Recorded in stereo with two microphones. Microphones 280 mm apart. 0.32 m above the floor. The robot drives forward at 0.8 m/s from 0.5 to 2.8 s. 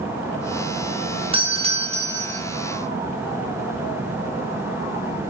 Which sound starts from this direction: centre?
A doorbell, at 1.3 s.